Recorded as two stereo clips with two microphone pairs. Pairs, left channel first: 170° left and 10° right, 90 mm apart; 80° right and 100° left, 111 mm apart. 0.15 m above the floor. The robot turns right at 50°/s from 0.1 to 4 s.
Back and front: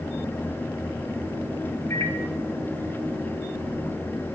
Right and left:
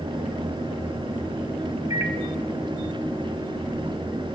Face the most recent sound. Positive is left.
turn(degrees=-120)